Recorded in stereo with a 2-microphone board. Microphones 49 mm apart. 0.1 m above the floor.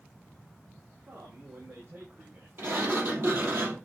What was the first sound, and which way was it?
A man speaking, 60° right (ahead or behind).